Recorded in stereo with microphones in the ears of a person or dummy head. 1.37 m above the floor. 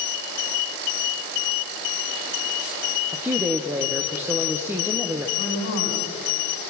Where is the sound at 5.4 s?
50° left (ahead or behind), 9.5 m.